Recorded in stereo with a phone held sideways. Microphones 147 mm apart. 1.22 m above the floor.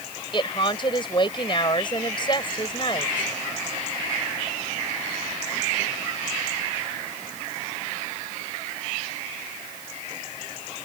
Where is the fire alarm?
I don't hear a fire alarm.